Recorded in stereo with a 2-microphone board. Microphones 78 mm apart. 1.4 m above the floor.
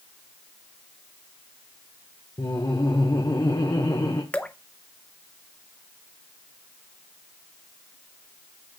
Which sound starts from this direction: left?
Laughter, at 2.4 s.